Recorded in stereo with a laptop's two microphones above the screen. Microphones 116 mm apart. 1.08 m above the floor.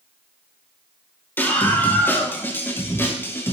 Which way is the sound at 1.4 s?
15° left (ahead or behind).